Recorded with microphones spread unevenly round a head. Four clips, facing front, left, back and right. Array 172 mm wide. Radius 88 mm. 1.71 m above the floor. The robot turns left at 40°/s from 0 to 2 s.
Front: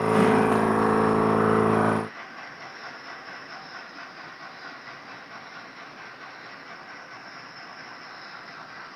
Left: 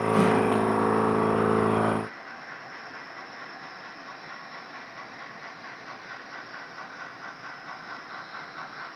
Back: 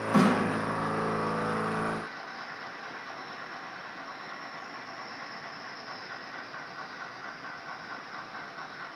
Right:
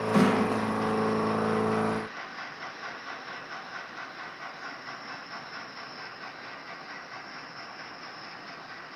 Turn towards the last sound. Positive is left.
turn(degrees=125)